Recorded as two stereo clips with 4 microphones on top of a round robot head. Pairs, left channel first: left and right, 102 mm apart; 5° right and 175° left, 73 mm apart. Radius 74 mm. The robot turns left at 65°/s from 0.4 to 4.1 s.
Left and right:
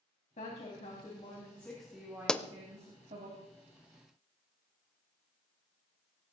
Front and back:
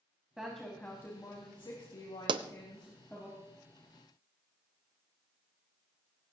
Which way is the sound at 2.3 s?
175° left.